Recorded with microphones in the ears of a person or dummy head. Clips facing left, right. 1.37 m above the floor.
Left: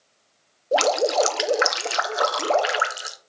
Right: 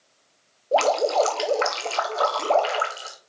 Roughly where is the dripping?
Centre.